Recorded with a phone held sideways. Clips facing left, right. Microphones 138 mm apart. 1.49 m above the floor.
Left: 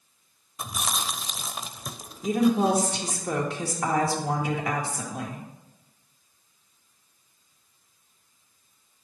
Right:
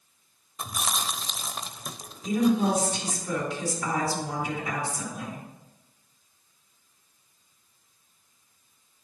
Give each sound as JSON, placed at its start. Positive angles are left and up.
{"t": 0.6, "sound": "chewing", "side_deg": 5, "distance_m": 0.5}
{"t": 2.2, "sound": "a woman speaking", "side_deg": 65, "distance_m": 1.9}